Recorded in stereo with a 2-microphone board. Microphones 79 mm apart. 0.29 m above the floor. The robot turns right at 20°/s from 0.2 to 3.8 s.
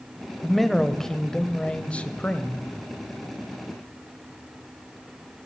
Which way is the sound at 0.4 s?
Centre (ahead or behind).